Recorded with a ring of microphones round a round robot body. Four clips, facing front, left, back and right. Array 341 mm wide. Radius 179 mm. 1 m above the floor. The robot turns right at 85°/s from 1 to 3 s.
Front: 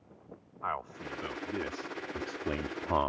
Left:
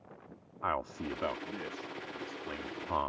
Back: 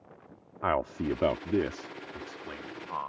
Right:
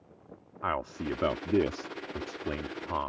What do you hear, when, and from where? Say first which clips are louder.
0.6 s a man speaking: right 2 dB, back 8 dB; 175° right; by 3.1 s 5° right